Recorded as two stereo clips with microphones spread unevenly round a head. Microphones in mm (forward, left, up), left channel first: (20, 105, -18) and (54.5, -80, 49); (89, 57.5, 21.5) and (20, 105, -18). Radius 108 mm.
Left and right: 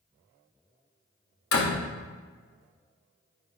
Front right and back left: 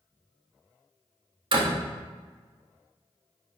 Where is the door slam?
125° left, 1.7 m.